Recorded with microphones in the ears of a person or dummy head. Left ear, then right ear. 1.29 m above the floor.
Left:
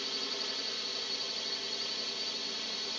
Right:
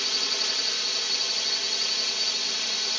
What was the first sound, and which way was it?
A drone, 40° right (ahead or behind).